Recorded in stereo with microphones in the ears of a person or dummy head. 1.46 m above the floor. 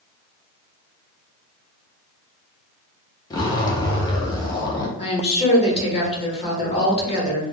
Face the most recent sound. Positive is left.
turn(degrees=35)  # may be behind; listen again after turning